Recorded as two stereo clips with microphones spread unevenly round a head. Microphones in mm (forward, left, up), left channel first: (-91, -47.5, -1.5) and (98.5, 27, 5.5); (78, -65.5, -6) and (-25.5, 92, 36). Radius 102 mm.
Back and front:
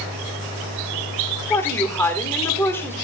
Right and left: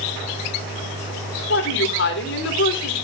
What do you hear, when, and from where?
1.5 s a woman speaking: 80° right, 3.5 m